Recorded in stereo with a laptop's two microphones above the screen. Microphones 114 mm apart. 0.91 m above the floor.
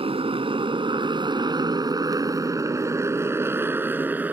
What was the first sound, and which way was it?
A motorcycle, 55° right (ahead or behind).